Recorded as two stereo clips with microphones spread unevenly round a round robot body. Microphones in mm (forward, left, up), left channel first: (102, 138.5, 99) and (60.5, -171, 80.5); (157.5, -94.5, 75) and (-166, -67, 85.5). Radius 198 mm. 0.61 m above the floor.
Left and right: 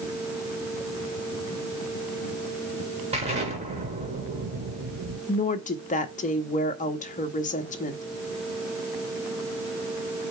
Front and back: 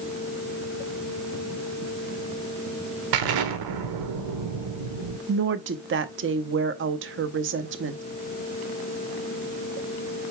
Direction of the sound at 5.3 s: 140° left.